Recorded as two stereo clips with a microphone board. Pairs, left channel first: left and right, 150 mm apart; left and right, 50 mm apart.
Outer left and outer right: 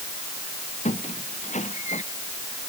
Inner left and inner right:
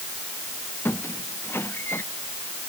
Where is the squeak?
50° left (ahead or behind).